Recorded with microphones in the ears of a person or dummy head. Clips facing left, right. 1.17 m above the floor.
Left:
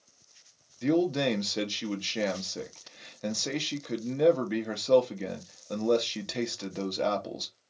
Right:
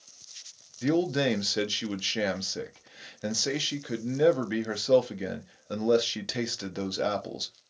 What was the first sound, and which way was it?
A man speaking, 5° right (ahead or behind).